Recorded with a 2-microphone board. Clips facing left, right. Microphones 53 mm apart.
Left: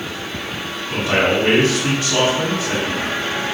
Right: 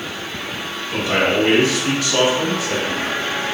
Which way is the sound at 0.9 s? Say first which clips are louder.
Left 1 dB; 30° left (ahead or behind).